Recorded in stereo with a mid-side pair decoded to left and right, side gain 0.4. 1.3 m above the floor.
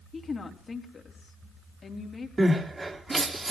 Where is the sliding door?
I don't hear a sliding door.